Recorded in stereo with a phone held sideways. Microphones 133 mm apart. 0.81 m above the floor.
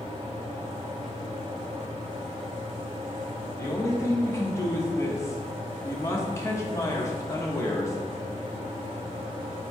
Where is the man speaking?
20° left (ahead or behind), 0.7 m.